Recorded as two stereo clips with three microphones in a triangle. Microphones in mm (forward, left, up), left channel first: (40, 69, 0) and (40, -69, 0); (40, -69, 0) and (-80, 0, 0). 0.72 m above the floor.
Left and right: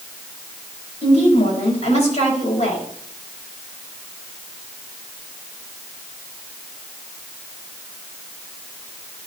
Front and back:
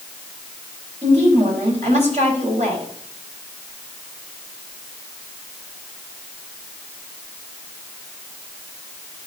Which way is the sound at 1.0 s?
120° left.